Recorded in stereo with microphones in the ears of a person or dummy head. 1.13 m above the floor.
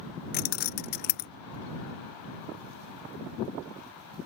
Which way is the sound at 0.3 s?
50° left (ahead or behind).